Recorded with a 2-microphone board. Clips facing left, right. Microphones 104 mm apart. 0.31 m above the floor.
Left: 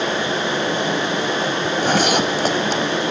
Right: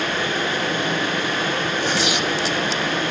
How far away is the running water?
About 7.5 m.